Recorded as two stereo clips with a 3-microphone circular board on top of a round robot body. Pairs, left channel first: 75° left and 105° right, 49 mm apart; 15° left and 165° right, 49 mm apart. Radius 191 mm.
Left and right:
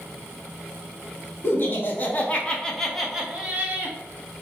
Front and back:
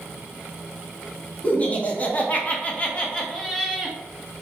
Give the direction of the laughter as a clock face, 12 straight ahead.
10 o'clock.